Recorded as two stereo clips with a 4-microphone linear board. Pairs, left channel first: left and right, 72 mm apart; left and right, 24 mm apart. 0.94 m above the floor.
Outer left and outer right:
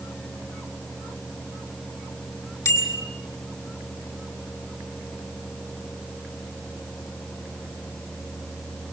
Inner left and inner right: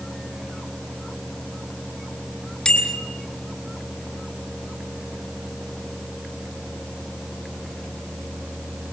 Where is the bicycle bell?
45° left (ahead or behind), 5.5 m.